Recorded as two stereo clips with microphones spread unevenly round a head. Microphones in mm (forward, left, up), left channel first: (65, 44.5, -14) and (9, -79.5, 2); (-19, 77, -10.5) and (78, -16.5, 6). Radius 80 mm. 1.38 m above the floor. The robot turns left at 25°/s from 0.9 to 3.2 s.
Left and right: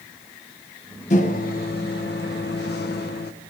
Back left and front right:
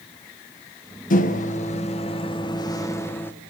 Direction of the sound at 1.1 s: 115° left.